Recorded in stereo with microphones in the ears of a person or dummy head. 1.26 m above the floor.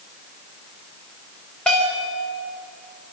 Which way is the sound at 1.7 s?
Centre (ahead or behind).